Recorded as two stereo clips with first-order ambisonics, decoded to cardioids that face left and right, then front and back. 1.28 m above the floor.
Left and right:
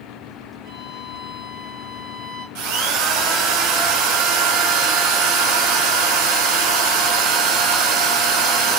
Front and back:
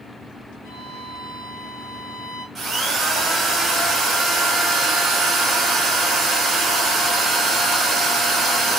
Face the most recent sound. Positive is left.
turn(degrees=-105)